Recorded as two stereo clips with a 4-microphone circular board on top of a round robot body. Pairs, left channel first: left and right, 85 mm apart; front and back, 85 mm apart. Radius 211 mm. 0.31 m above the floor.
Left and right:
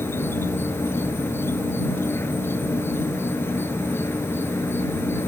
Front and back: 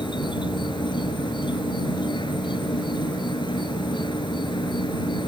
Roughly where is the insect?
Ahead left.